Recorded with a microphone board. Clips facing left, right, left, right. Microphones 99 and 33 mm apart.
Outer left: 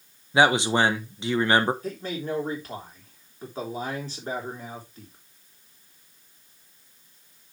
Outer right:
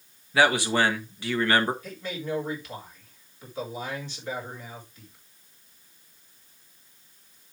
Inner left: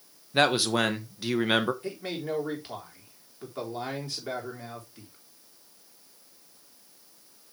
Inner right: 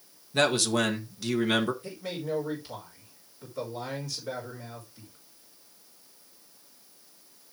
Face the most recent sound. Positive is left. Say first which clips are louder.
# outer left 3 dB, inner left 1 dB
turn(degrees=40)  # may be behind; listen again after turning